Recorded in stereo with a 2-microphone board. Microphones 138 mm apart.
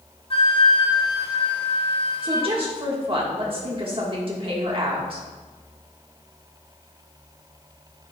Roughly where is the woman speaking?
Right.